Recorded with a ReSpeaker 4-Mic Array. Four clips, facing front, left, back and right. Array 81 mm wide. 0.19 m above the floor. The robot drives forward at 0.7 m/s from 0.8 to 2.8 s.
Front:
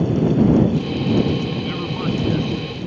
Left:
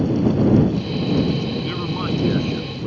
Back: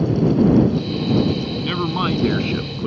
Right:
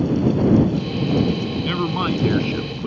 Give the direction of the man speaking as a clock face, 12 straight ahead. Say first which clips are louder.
Right 3 dB, back 3 dB; 5 o'clock.